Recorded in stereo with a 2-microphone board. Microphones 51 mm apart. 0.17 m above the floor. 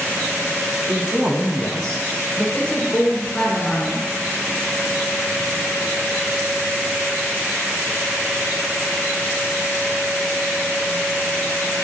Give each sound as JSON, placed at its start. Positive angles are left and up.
{"t": 0.9, "sound": "a man speaking", "side_deg": -40, "distance_m": 1.3}
{"t": 2.5, "sound": "a woman speaking", "side_deg": 20, "distance_m": 1.7}